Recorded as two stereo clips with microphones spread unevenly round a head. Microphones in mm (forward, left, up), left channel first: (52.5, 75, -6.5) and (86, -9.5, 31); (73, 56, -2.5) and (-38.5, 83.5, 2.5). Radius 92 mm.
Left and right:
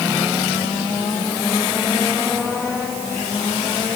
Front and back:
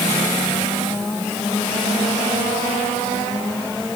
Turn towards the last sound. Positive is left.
No sound to turn to.